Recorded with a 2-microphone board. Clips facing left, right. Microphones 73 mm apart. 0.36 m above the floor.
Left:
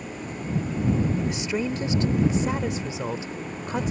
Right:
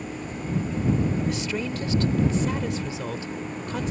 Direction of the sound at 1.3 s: 20° left (ahead or behind).